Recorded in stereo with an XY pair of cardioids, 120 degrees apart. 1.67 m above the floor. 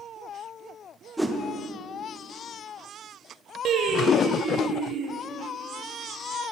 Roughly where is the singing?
Ahead right.